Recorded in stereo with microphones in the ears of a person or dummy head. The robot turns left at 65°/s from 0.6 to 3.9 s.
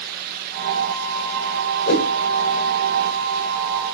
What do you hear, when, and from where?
1.9 s a whoosh: 55° left (ahead or behind), 4.5 m; by 2.1 s 70° left (ahead or behind), 4.5 m